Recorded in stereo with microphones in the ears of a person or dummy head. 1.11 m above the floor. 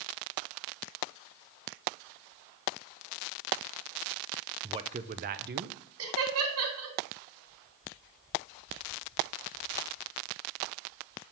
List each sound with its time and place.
4.6 s a man speaking: 20° right (ahead or behind), 0.6 m; by 5.8 s 55° right (ahead or behind), 1.0 m
6.0 s laughter: 80° right, 2.5 m